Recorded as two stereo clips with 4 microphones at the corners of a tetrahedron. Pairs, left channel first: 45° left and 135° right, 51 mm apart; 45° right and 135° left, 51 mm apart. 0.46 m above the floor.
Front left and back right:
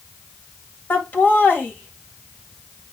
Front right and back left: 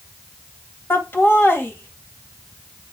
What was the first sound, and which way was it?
Laughter, 5° right.